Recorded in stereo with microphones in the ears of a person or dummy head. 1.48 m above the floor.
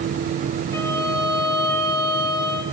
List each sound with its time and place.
0.7 s a violin: 15° left (ahead or behind), 1.3 m